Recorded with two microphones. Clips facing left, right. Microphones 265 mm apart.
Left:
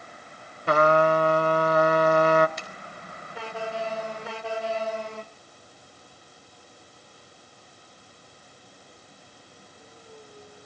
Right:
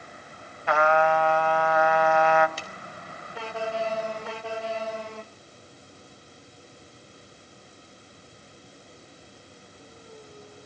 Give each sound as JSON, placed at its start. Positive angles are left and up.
{"t": 0.7, "sound": "a trumpet", "side_deg": 45, "distance_m": 0.9}
{"t": 2.6, "sound": "a finger snap", "side_deg": -35, "distance_m": 4.0}